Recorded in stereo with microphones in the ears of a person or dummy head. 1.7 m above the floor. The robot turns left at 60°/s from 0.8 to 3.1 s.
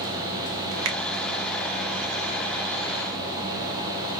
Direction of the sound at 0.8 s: 70° right (ahead or behind).